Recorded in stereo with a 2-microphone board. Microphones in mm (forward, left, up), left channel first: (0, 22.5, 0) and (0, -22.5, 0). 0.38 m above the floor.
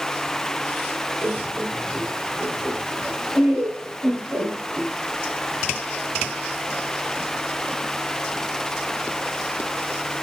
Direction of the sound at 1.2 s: 45° right (ahead or behind).